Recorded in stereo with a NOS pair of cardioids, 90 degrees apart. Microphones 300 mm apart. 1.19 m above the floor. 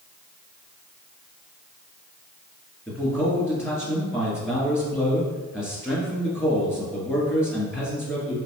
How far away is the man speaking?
About 2.0 m.